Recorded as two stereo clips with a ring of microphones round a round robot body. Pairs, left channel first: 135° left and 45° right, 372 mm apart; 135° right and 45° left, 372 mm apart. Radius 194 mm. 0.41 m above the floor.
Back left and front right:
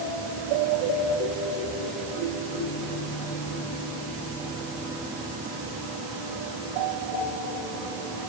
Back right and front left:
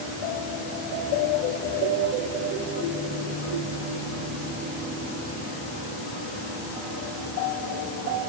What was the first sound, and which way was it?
Only background noise.